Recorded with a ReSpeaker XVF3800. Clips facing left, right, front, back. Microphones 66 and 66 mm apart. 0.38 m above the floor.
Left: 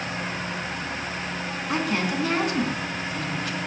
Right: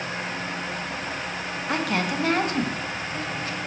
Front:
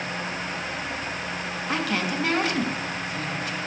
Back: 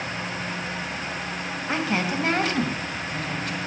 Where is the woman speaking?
115° right, 2.0 m; by 3.6 s 145° right, 2.0 m.